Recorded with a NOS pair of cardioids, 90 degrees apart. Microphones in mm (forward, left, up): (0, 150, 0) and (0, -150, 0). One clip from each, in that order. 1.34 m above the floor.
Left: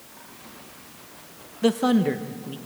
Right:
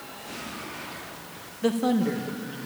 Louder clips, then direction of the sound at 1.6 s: Left 3 dB; 35° left.